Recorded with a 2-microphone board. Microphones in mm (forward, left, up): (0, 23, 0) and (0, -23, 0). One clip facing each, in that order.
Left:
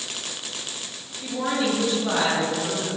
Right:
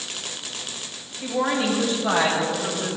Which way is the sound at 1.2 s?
40° right (ahead or behind).